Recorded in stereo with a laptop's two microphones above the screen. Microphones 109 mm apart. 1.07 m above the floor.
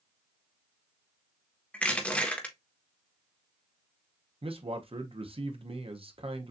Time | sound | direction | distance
1.7 | crushing | 10° left (ahead or behind) | 1.3 m
4.4 | a man speaking | 60° right (ahead or behind) | 0.8 m